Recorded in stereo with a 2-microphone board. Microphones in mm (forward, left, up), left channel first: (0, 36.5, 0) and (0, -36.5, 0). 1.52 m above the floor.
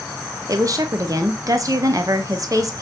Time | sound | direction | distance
0.5 | a woman speaking | 55° right (ahead or behind) | 0.5 m